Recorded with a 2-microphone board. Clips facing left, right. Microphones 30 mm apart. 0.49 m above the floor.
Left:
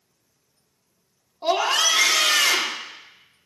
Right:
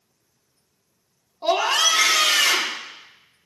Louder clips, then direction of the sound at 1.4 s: Right 1 dB; centre (ahead or behind).